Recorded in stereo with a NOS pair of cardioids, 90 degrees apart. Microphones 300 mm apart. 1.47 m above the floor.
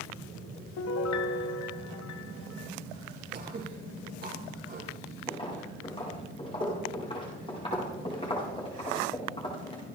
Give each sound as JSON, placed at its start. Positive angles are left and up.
{"t": 0.8, "sound": "a piano", "azimuth_deg": 65, "distance_m": 1.3}
{"t": 3.3, "sound": "throat clearing", "azimuth_deg": -35, "distance_m": 5.5}
{"t": 5.3, "sound": "footsteps", "azimuth_deg": 20, "distance_m": 6.0}